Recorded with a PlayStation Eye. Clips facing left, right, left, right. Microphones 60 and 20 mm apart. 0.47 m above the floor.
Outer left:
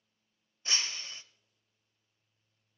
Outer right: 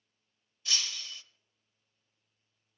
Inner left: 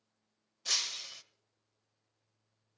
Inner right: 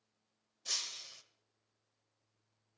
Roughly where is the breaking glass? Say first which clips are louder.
Outer left 1 dB, inner left 6 dB; left.